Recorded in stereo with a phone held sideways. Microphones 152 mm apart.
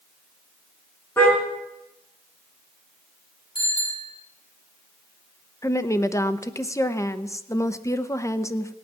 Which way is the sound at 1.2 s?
15° left (ahead or behind).